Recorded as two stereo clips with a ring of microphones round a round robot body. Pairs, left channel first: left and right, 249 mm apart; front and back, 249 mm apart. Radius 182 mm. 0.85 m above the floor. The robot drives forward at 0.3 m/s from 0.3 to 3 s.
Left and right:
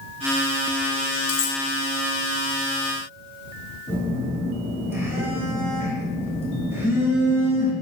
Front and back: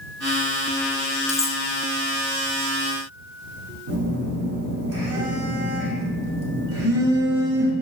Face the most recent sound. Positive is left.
turn(degrees=155)